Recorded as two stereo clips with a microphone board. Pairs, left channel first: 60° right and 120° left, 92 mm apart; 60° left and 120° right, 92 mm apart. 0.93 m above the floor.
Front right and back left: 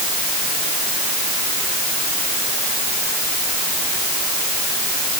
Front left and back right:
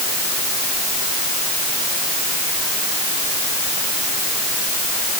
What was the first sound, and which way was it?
Only background noise.